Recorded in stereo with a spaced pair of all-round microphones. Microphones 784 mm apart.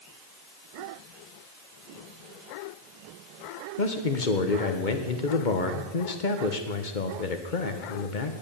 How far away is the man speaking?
About 1.4 m.